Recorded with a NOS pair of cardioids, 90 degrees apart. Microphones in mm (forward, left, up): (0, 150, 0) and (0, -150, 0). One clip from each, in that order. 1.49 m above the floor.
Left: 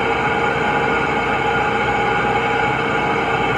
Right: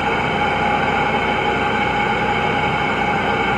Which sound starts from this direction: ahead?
An engine running, at 0.0 s.